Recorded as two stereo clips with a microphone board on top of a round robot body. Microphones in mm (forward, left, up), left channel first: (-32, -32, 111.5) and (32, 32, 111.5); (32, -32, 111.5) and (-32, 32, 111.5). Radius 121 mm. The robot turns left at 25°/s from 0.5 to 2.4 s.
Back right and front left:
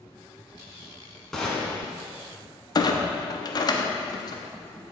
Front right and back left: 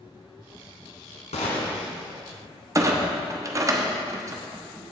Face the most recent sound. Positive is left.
turn(degrees=-175)